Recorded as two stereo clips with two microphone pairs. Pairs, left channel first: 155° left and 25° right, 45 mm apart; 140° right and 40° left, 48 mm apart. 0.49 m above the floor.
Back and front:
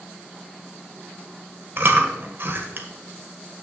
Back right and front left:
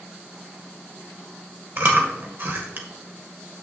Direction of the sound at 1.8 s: 10° left.